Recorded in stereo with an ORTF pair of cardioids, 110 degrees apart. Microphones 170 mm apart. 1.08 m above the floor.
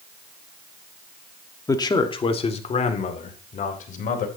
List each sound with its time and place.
1.7 s a man speaking: 20° left, 1.8 m; by 4.3 s 50° left, 4 m